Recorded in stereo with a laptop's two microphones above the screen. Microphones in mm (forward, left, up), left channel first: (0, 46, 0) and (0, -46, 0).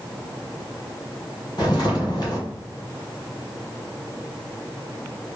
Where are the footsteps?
55° left (ahead or behind), 1.9 m.